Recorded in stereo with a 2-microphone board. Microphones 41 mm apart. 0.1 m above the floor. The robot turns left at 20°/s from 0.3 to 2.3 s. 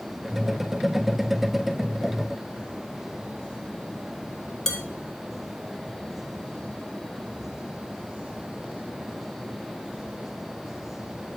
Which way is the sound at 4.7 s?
15° left (ahead or behind).